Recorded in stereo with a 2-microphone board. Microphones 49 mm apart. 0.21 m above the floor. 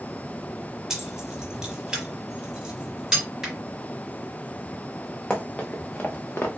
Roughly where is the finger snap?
Centre.